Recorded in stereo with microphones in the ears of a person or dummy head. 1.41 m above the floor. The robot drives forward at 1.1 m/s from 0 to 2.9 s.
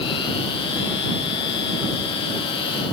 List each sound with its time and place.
Only background noise.